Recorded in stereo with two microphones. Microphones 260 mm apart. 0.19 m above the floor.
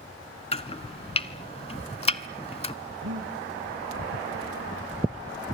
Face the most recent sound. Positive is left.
turn(degrees=-70)  # may be behind; listen again after turning